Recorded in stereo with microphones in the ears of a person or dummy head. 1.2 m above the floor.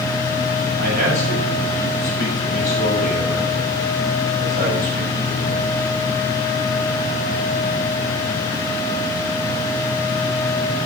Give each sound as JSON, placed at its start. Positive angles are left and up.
{"t": 0.8, "sound": "a man speaking", "side_deg": -45, "distance_m": 9.0}